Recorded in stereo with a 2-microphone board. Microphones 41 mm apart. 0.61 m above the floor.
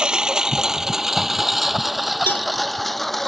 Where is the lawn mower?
20° right (ahead or behind); by 3.3 s 5° left (ahead or behind).